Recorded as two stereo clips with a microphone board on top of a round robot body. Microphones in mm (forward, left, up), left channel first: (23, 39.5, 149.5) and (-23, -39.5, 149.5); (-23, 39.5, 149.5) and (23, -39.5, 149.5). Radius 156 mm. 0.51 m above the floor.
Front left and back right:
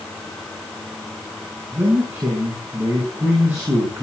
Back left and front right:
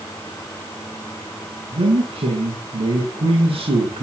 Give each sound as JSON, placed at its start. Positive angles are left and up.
{"t": 1.7, "sound": "a man speaking", "azimuth_deg": -55, "distance_m": 6.5}